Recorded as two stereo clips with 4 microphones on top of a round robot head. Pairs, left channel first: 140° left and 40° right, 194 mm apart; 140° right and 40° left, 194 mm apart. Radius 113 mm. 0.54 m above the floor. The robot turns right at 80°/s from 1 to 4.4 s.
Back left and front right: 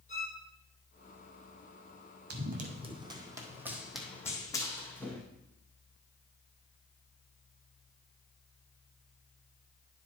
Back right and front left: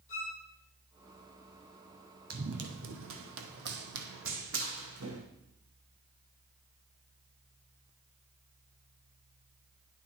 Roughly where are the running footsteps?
Ahead.